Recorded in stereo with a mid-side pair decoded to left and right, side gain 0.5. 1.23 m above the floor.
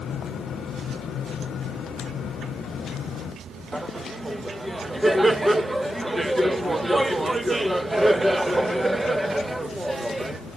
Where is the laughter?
10° right, 1.2 m.